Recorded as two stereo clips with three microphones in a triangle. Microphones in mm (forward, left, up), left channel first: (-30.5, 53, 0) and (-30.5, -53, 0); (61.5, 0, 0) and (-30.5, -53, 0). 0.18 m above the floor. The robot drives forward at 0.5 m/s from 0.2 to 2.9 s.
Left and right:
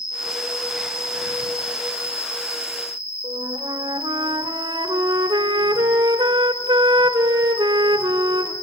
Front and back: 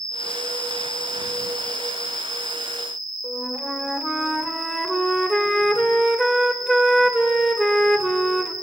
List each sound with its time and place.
0.0 s an insect: 150° left, 4 m; by 8.6 s 155° left, 5.5 m
3.2 s a flute: 65° right, 0.8 m